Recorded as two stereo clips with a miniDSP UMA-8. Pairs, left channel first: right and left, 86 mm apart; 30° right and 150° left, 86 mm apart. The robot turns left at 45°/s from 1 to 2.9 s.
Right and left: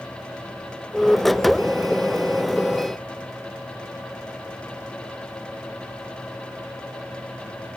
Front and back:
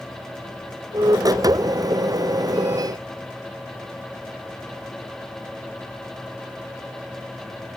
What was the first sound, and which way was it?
Only background noise.